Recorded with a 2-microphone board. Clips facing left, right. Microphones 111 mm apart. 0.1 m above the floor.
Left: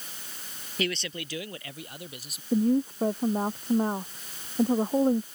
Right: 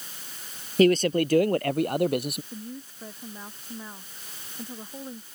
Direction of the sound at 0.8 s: 40° right (ahead or behind).